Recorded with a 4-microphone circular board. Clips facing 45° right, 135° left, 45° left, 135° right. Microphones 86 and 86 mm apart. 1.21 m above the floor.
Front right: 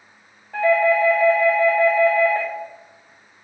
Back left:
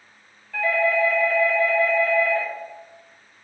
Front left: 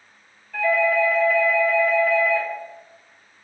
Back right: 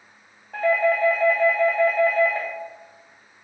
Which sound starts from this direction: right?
A doorbell, at 0.5 s.